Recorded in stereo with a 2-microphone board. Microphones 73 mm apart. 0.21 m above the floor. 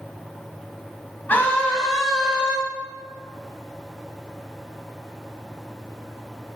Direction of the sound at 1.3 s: 25° left (ahead or behind).